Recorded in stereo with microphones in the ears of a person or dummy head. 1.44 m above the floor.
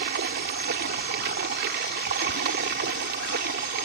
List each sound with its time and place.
0.0 s running water: 55° right (ahead or behind)